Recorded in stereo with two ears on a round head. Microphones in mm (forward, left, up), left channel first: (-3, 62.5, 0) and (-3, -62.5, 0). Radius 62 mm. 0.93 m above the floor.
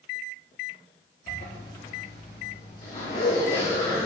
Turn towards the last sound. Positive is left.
turn(degrees=50)  # may be behind; listen again after turning